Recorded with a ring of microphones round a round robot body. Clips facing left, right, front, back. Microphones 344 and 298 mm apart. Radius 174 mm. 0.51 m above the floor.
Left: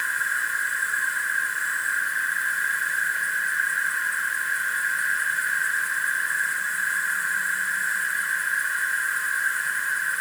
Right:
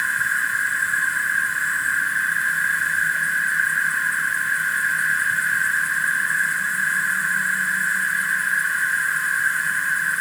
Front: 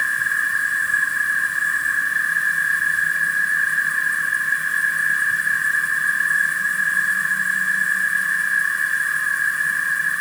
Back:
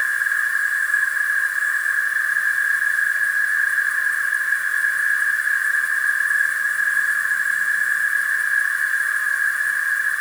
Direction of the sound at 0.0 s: 60° right.